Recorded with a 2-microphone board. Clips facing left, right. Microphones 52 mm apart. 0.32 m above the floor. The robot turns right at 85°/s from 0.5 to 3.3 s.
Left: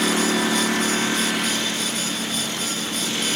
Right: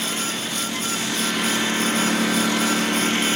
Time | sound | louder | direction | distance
0.0 | a lawn mower | left 7 dB | 80° left | ?